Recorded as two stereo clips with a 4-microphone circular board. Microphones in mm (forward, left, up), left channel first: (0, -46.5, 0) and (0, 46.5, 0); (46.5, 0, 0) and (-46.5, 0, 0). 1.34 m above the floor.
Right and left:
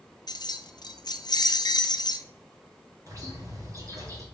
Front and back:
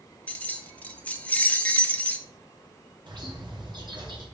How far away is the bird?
About 2 m.